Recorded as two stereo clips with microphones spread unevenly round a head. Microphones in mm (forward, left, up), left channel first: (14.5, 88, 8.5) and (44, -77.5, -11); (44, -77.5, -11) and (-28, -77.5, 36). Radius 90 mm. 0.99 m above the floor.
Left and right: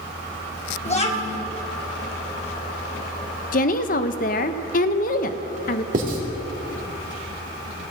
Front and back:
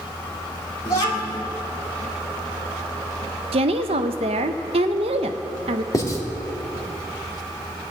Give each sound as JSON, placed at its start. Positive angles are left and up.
{"t": 0.8, "sound": "a child speaking", "azimuth_deg": 45, "distance_m": 1.9}
{"t": 3.5, "sound": "a woman speaking", "azimuth_deg": 145, "distance_m": 0.6}
{"t": 5.9, "sound": "writing", "azimuth_deg": -40, "distance_m": 2.0}